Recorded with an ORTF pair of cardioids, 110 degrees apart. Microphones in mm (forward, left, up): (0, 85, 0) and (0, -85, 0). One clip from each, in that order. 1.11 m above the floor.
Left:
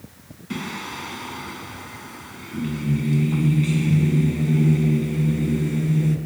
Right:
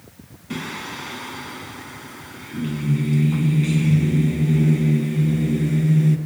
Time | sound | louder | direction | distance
0.5 | singing | right 1 dB | 5° right | 5.5 m